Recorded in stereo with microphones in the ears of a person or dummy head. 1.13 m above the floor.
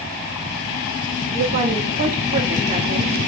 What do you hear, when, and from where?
1.3 s a woman speaking: 45° right (ahead or behind), 2 m